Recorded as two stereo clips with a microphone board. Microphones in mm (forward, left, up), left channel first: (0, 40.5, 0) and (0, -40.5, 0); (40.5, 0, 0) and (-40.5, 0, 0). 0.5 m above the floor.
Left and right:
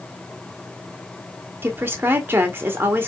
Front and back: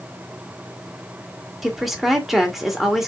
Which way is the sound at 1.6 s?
95° right.